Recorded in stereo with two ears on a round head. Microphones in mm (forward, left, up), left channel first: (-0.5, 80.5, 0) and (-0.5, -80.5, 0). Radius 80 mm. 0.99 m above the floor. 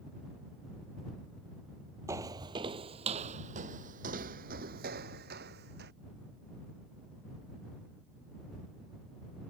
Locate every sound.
2.1 s footsteps: 15° right (ahead or behind); by 5.9 s 60° right (ahead or behind)